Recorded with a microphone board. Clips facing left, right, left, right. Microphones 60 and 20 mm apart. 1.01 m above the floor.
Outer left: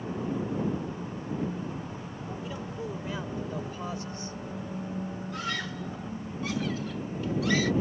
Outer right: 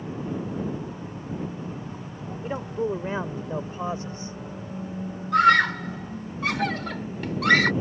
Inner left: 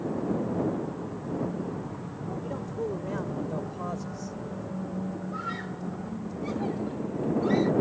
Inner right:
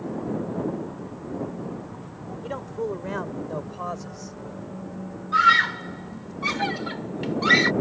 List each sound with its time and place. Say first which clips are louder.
2.4 s a man speaking: outer right 12 dB, inner right 5 dB; 45° right (ahead or behind); by 4.4 s 25° right (ahead or behind)
5.3 s a scream: outer right 19 dB, inner right 17 dB; 75° right (ahead or behind)